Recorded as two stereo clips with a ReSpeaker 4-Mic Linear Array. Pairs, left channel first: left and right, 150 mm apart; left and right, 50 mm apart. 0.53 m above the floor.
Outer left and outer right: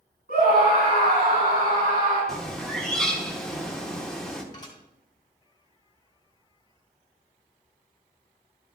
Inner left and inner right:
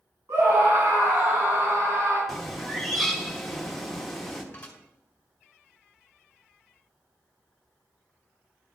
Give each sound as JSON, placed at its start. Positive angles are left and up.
{"t": 0.3, "sound": "a scream", "side_deg": -75, "distance_m": 4.5}
{"t": 2.3, "sound": "a bird", "side_deg": 5, "distance_m": 1.1}
{"t": 4.5, "sound": "dishes clattering", "side_deg": 25, "distance_m": 2.0}